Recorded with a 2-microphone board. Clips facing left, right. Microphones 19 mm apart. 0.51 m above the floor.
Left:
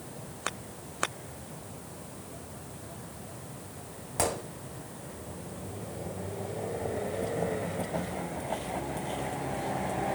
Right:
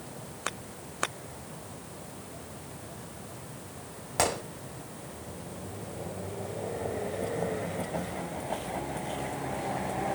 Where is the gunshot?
35° right (ahead or behind), 1.6 m.